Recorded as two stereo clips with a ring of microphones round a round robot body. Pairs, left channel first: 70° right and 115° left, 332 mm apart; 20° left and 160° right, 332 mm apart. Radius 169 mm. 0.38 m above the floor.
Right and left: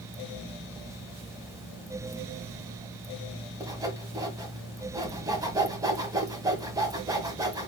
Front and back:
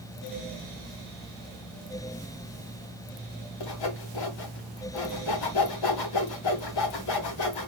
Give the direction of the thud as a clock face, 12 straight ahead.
I don't hear a thud.